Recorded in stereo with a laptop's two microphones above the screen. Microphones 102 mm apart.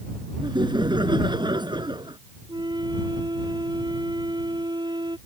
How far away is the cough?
No cough in this recording.